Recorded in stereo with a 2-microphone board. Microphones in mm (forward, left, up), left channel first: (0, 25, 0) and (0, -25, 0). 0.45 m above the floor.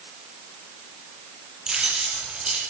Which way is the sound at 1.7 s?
15° right (ahead or behind).